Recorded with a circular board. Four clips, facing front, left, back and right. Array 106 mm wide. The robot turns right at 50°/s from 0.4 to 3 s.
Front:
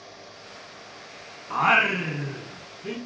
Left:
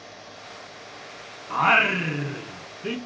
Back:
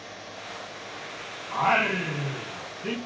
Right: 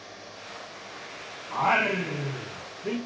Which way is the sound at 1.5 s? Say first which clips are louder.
Left 3 dB, front 2 dB; 45° left.